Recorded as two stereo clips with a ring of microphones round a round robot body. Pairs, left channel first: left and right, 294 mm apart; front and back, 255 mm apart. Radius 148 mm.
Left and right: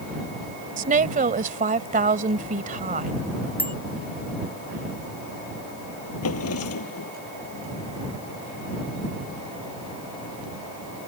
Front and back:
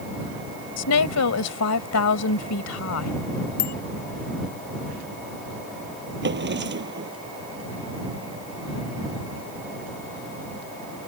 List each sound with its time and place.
0.8 s a woman speaking: 25° right
3.6 s a bicycle bell: 5° left
6.2 s a drawer: 135° left